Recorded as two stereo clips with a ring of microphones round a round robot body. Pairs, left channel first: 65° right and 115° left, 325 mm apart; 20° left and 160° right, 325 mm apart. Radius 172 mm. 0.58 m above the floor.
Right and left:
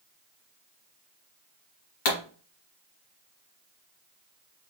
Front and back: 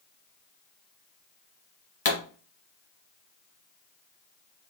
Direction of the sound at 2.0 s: 45° right.